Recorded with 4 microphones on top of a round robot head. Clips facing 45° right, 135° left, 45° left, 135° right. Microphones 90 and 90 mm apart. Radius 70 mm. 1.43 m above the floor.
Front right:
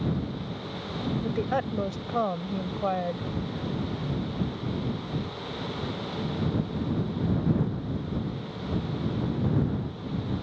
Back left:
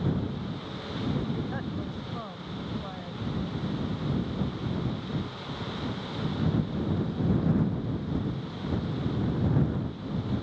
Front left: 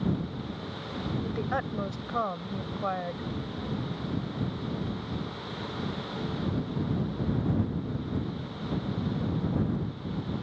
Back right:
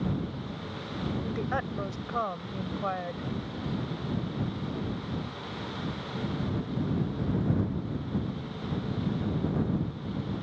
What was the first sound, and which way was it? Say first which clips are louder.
A woman speaking: front right 5 dB, front left 2 dB; 40° right.